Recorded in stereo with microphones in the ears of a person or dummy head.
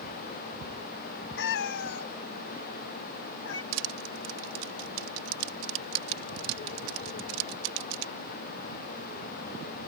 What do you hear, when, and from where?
1.4 s a cat meowing: 65° left (ahead or behind); by 3.6 s 80° left
3.7 s crushing: 75° right (ahead or behind)